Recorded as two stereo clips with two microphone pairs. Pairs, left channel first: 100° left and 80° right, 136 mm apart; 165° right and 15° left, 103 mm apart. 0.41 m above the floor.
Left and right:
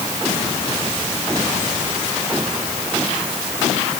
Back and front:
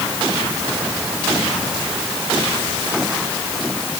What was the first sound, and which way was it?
Only background noise.